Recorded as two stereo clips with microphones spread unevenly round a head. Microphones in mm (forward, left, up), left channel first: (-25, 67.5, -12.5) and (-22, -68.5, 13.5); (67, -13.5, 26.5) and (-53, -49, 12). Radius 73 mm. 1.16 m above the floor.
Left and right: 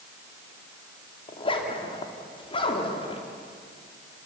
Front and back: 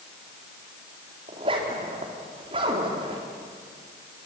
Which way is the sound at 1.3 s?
140° left.